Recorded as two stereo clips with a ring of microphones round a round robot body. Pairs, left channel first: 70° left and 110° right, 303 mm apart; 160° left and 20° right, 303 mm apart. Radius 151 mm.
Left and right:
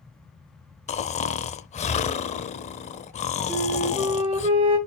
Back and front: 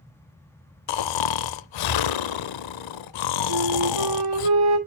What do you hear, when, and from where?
0.9 s snoring: 140° left, 0.6 m
3.5 s a flute: 40° right, 2.5 m